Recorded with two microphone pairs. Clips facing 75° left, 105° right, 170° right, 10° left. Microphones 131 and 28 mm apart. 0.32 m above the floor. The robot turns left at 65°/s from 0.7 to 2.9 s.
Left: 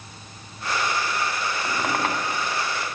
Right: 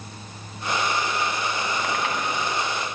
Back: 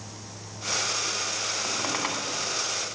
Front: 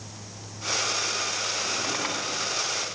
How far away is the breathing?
I don't hear breathing.